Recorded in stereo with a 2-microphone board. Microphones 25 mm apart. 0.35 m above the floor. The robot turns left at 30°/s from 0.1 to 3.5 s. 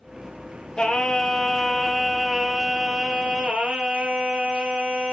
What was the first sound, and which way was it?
Singing, 40° left.